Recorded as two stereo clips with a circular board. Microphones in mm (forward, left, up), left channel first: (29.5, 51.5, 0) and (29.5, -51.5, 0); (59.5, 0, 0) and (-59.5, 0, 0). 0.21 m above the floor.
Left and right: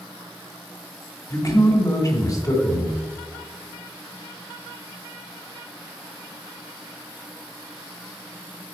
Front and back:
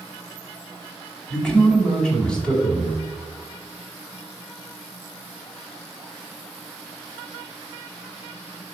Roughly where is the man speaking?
Left.